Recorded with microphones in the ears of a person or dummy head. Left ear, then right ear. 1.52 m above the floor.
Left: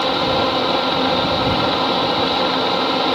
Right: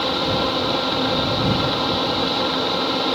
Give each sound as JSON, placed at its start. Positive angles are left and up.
{"t": 0.0, "sound": "a fan", "side_deg": 20}